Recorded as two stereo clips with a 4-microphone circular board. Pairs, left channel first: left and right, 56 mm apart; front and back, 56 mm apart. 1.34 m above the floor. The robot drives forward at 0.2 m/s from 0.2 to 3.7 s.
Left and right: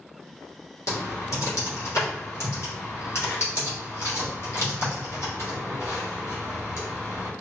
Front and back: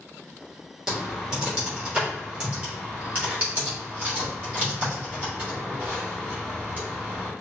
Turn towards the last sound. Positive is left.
turn(degrees=125)